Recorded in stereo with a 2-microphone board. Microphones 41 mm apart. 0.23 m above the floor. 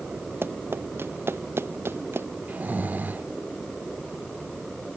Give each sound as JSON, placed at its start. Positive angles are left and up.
{"t": 0.4, "sound": "running footsteps", "side_deg": -65}
{"t": 2.5, "sound": "snoring", "side_deg": -45}